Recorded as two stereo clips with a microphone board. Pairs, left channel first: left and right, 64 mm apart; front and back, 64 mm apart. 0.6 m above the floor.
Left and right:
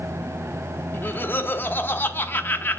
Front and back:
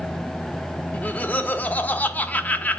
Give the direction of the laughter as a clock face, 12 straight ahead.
10 o'clock.